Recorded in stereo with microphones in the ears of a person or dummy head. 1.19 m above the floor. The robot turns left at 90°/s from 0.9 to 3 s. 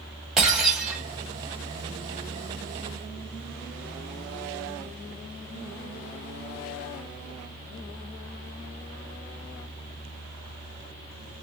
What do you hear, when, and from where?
0.4 s breaking glass: 5° right (ahead or behind), 2 m; by 1.0 s 15° right (ahead or behind), 2 m